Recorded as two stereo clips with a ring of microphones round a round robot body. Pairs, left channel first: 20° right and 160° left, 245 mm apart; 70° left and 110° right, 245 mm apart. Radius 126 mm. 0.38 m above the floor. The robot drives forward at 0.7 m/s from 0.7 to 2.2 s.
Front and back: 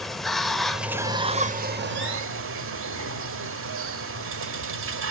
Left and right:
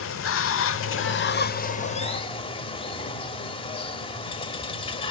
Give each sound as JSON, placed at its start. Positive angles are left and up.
{"t": 0.0, "sound": "running water", "azimuth_deg": 65, "distance_m": 1.0}